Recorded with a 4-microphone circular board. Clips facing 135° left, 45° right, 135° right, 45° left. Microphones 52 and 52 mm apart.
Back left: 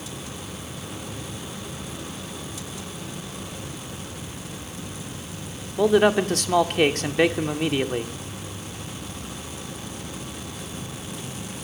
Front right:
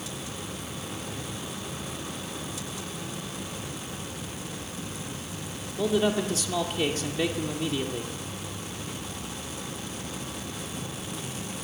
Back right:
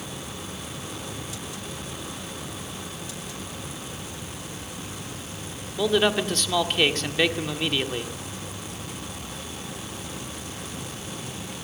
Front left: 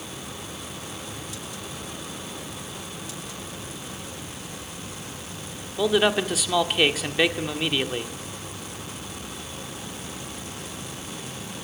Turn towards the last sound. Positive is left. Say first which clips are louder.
# back left 7 dB, front left 1 dB
turn(degrees=125)